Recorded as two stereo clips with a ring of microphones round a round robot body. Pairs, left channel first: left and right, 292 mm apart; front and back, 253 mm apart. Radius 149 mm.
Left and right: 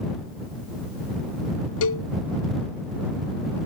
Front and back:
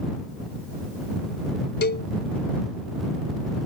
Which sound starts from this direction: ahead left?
A cowbell, at 1.8 s.